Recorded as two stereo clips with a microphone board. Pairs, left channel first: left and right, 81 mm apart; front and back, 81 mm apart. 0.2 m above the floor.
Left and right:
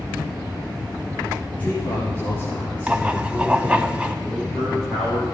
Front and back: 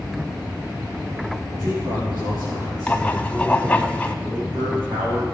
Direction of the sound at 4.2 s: Straight behind.